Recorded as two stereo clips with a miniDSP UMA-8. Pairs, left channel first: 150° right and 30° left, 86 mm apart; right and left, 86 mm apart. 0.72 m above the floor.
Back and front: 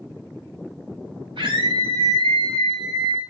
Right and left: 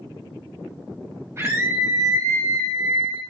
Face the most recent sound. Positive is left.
turn(degrees=55)